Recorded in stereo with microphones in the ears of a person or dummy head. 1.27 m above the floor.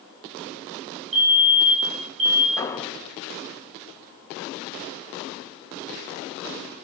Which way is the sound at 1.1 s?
65° right (ahead or behind).